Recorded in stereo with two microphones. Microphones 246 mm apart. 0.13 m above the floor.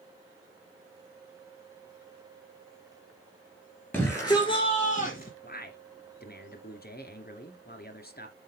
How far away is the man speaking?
About 2.0 m.